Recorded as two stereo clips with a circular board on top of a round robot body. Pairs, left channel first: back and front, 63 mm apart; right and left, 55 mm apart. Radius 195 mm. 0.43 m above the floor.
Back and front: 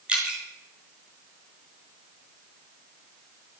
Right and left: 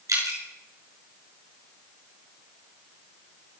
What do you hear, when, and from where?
0.1 s dripping: 75° left, 5 m